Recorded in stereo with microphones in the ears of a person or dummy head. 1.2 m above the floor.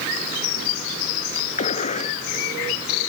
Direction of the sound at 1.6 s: 40° left (ahead or behind).